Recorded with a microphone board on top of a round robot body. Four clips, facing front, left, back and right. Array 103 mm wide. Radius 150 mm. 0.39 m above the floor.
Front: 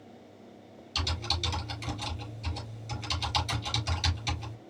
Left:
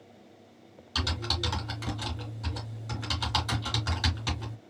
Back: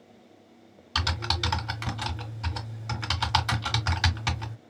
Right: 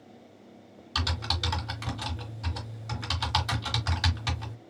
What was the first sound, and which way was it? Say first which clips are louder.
Typing on a keyboard: even, back 5 dB; 170° right.